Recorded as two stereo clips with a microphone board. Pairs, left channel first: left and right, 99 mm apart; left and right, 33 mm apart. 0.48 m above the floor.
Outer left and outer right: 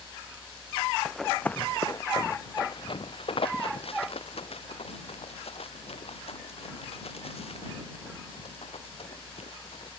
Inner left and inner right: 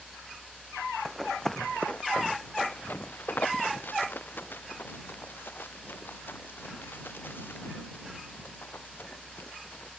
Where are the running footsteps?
Centre (ahead or behind); by 9.9 s 85° left.